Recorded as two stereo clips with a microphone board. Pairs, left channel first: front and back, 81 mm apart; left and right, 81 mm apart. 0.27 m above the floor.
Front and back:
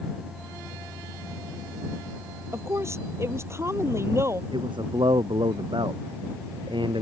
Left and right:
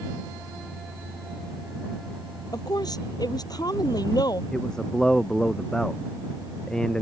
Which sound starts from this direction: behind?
A man speaking, at 4.5 s.